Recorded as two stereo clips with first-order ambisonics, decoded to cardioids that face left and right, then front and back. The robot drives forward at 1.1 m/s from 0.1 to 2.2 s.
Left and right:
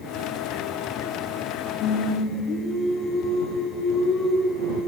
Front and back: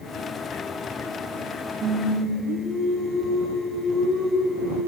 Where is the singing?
135° left, 7.5 m.